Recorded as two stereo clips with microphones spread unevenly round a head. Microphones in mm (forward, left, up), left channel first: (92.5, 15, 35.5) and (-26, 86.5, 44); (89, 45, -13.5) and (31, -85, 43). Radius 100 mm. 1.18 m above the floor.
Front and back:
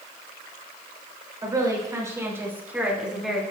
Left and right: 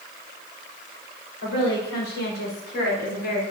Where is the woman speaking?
90° left, 4 m; by 3.4 s 60° left, 3 m.